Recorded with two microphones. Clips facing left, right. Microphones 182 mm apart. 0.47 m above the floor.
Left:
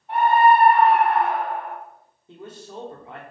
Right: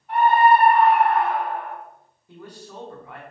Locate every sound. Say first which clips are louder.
0.1 s a scream: even; 25° left (ahead or behind), 1.8 m
2.3 s a man speaking: left 2 dB; 25° left (ahead or behind), 0.8 m